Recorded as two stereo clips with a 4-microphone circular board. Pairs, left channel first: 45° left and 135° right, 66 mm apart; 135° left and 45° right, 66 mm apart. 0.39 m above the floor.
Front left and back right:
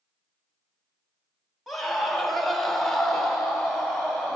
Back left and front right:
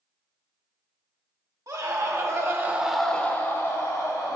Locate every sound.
1.7 s a scream: 45° right, 2 m; by 4.3 s 130° left, 2.5 m